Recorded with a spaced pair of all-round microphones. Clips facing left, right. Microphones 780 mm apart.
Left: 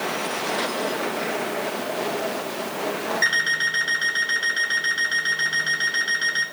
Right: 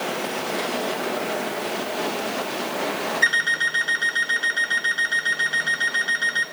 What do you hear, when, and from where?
3.2 s an alarm clock: 50° left (ahead or behind), 6.5 m